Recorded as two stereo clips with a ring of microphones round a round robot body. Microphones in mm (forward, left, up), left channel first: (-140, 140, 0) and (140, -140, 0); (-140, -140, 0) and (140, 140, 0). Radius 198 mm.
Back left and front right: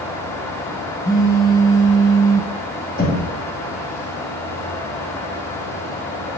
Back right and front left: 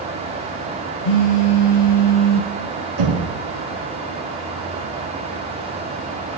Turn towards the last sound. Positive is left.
turn(degrees=70)